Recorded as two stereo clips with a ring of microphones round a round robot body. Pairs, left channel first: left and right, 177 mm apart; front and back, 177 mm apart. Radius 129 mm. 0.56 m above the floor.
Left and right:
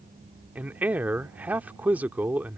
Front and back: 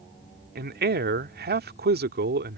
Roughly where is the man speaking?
Behind.